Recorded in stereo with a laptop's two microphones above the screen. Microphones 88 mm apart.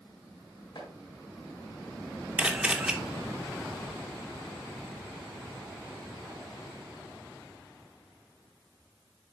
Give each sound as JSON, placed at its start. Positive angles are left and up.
{"t": 0.8, "sound": "chopping", "side_deg": 70, "distance_m": 5.5}
{"t": 2.4, "sound": "a camera shutter", "side_deg": -15, "distance_m": 2.0}